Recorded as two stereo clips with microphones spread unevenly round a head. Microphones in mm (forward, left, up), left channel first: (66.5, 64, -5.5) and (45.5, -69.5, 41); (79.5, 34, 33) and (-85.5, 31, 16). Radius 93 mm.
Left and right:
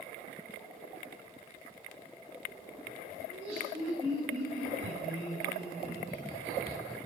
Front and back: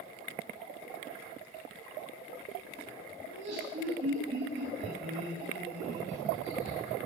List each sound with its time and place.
3.3 s laughter: 160° right, 7.5 m